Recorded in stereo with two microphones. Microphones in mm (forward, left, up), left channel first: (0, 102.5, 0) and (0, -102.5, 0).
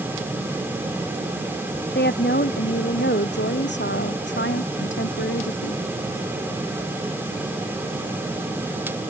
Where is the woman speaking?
55° left (ahead or behind); by 5.8 s 65° left (ahead or behind).